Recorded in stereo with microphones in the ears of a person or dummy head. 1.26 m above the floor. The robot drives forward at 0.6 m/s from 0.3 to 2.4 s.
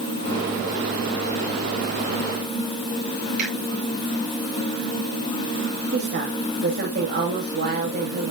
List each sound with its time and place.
3.4 s a finger snap: 40° right (ahead or behind), 6.5 m
5.9 s a woman speaking: 50° right (ahead or behind), 2.5 m